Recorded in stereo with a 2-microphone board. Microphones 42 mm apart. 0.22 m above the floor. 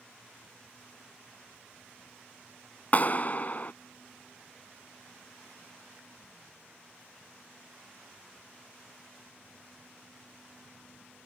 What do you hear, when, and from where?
2.9 s a clap: 40° left (ahead or behind)